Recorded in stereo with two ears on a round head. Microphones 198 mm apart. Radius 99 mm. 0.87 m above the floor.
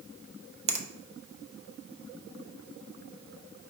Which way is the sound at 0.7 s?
30° right (ahead or behind).